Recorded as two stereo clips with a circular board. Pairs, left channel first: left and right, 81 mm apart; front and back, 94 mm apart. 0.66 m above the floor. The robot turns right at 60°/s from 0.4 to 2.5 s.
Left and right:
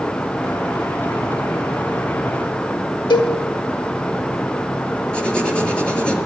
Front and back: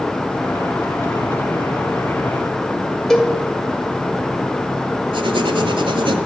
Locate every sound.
3.1 s a cowbell: 85° left, 2 m
5.1 s writing: 165° left, 1.9 m